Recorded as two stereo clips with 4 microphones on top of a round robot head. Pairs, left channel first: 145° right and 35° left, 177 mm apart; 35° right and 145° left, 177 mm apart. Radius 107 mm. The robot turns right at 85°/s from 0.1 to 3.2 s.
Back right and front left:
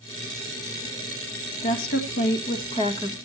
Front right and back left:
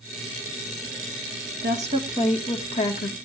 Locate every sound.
1.6 s a woman speaking: 175° left, 1.9 m; by 3.1 s 55° right, 1.9 m